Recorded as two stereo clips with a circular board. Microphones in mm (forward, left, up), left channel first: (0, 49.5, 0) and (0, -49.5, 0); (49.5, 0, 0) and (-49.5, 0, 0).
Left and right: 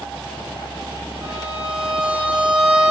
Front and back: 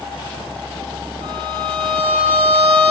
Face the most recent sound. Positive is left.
turn(degrees=-165)